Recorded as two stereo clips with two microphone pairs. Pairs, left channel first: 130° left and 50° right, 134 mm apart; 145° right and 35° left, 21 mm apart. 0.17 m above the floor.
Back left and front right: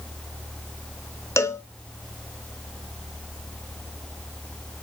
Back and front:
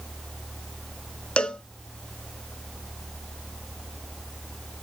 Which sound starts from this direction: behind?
A cowbell, at 1.4 s.